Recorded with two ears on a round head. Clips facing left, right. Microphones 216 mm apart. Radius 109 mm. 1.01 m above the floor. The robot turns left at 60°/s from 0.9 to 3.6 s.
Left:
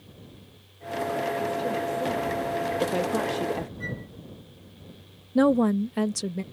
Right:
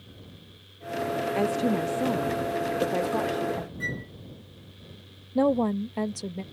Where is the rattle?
No rattle in this recording.